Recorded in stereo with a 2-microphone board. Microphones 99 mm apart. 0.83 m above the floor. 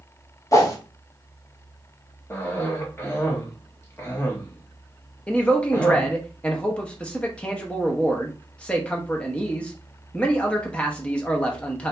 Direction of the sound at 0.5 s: 30° left (ahead or behind).